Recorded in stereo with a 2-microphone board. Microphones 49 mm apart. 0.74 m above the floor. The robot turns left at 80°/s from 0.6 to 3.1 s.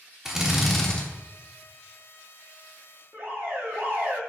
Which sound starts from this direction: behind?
A drill, at 0.2 s.